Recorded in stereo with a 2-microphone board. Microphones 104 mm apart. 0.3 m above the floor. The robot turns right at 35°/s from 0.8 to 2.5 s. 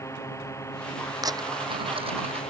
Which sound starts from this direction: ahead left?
A drone, at 0.0 s.